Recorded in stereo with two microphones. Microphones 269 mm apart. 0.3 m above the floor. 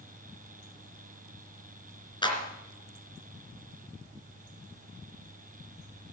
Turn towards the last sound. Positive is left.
turn(degrees=15)  # may be behind; listen again after turning